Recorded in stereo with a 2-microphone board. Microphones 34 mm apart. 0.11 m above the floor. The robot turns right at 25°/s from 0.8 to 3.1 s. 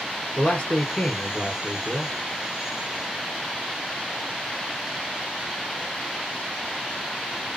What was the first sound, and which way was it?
A man speaking, 130° left.